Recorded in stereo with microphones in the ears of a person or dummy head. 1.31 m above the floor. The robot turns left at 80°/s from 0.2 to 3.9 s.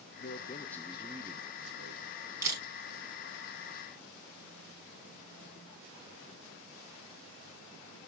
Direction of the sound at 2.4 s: 10° right (ahead or behind).